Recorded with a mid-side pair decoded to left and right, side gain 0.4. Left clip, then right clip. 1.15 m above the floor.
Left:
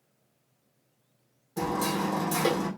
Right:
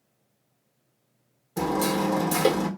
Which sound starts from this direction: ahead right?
Hammering, at 1.6 s.